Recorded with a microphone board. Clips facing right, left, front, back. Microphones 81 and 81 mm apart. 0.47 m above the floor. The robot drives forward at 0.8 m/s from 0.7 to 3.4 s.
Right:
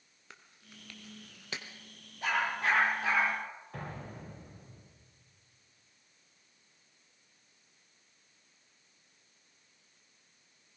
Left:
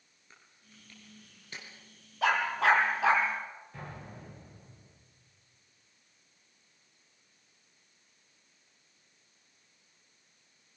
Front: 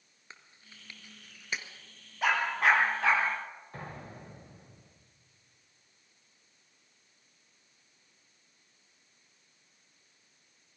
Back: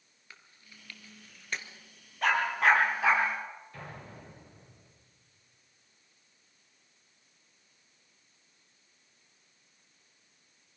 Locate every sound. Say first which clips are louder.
0.3 s chewing: right 4 dB, front 1 dB; 65° right, 2 m; by 1.7 s 90° right, 1.9 m
2.2 s a dog barking: left 5 dB, back 1 dB; 85° left, 5 m; by 3.2 s 95° left, 5 m
3.7 s an explosion: right 2 dB, front 2 dB; 60° right, 8 m